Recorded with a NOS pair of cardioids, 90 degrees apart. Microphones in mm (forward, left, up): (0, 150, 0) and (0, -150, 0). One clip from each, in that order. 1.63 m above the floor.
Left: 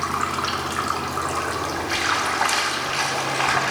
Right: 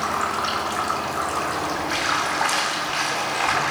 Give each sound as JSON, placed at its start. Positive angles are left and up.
{"t": 0.0, "sound": "running water", "azimuth_deg": 20, "distance_m": 3.0}